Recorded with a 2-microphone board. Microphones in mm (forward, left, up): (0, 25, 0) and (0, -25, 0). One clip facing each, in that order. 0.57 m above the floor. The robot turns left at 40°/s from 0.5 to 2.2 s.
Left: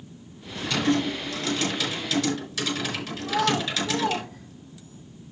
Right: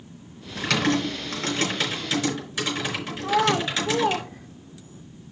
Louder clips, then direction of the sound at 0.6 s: Right 1 dB; 85° right.